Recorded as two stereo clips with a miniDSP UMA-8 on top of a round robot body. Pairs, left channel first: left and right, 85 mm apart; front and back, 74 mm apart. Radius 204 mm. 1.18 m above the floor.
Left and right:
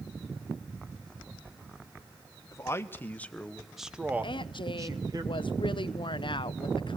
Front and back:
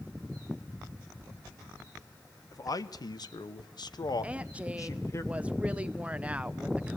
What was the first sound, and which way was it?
A man speaking, 35° left.